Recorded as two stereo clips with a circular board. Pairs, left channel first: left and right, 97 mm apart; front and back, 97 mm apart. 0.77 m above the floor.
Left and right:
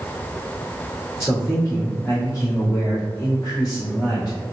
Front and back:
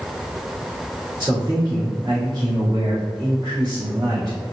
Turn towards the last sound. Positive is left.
turn(degrees=140)